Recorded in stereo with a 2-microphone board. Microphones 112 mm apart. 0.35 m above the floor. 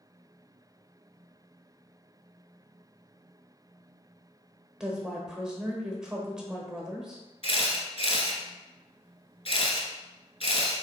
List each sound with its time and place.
4.8 s a woman speaking: 5° right (ahead or behind), 1.0 m
7.4 s a camera shutter: 50° left (ahead or behind), 1.1 m